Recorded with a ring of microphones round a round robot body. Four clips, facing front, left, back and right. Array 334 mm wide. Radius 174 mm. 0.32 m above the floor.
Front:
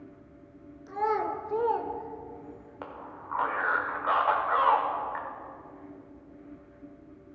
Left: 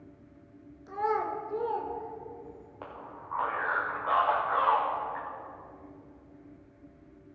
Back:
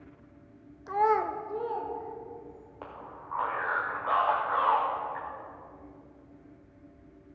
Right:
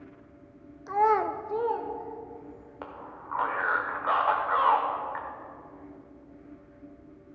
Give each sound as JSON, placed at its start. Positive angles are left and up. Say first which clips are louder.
{"t": 0.9, "sound": "a child speaking", "louder": "right 6 dB, back 3 dB", "azimuth_deg": -130, "distance_m": 0.8}
{"t": 2.8, "sound": "a man speaking", "louder": "right 2 dB, front 2 dB", "azimuth_deg": -50, "distance_m": 1.4}